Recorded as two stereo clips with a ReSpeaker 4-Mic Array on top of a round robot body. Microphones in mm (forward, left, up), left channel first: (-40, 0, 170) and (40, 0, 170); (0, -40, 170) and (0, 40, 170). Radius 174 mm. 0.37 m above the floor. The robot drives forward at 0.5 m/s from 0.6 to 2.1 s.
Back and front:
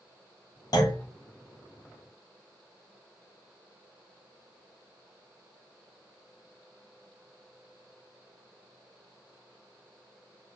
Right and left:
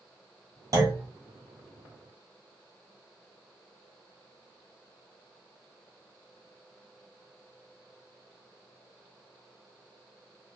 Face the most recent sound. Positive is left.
turn(degrees=160)